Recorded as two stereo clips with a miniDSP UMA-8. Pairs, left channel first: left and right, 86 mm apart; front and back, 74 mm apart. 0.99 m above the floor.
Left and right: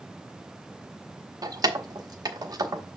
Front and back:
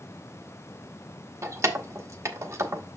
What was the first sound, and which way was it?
Keys jangling, 130° right.